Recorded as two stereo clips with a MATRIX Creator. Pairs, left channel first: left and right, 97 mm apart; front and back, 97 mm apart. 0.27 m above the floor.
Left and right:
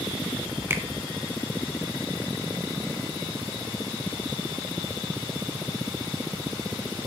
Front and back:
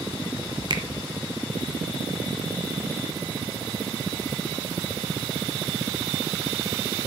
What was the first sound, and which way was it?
A finger snap, 150° right.